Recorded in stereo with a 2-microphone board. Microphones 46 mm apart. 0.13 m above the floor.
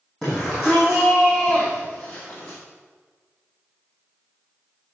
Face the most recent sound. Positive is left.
turn(degrees=35)  # may be behind; listen again after turning